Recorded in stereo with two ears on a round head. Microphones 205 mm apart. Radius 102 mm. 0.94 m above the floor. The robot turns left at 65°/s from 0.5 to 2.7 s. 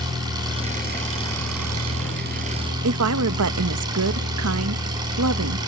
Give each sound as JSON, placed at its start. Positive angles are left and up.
{"t": 0.0, "sound": "an engine running", "azimuth_deg": -20, "distance_m": 8.5}
{"t": 2.8, "sound": "a woman speaking", "side_deg": -70, "distance_m": 0.8}